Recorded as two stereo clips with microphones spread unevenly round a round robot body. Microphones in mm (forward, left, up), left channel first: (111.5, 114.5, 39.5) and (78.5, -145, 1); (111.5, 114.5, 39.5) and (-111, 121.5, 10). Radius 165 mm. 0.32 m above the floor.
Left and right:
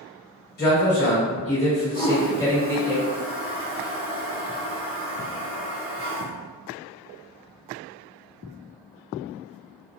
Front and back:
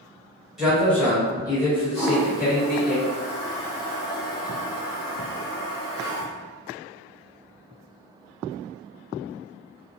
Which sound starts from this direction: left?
A man speaking, at 0.6 s.